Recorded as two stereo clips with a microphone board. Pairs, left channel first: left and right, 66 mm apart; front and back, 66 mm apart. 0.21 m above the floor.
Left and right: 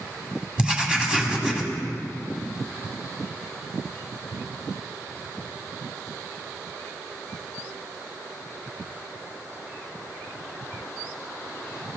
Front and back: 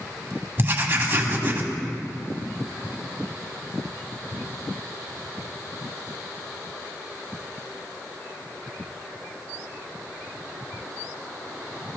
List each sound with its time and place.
0.6 s writing: 155° right, 1.7 m